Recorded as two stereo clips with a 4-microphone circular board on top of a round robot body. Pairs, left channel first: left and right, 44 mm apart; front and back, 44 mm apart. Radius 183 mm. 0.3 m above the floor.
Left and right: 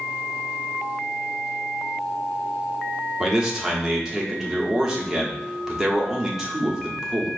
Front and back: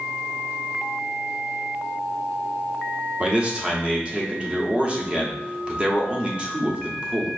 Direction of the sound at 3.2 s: 155° right.